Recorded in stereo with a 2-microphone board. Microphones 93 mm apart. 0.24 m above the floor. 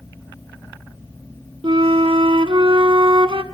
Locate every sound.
1.6 s a flute: 65° right (ahead or behind), 0.7 m